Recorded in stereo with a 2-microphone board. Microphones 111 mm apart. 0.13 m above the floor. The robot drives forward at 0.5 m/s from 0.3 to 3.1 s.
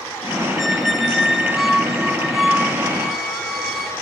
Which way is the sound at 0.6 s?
Centre (ahead or behind).